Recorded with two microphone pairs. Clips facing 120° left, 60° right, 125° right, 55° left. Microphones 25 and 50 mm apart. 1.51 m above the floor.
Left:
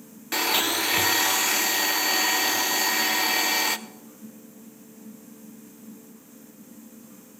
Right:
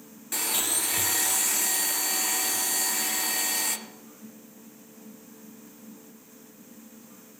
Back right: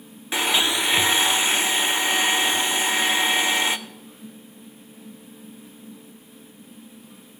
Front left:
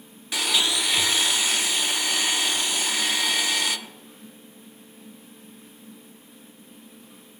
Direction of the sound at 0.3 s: 170° left.